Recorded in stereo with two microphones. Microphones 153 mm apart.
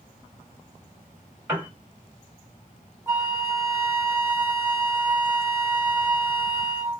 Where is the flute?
15° right (ahead or behind), 1.1 m.